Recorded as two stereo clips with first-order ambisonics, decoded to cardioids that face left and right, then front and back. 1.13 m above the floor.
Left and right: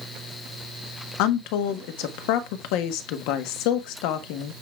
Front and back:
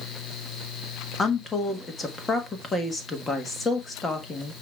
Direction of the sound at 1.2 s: 75° left.